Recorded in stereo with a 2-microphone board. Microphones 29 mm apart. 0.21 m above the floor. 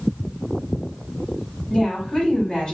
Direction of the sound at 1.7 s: 20° left (ahead or behind).